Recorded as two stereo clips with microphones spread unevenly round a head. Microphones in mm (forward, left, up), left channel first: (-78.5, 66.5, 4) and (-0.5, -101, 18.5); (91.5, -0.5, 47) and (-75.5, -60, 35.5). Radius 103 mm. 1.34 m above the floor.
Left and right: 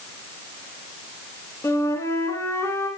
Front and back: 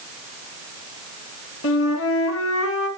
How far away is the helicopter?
No helicopter in this recording.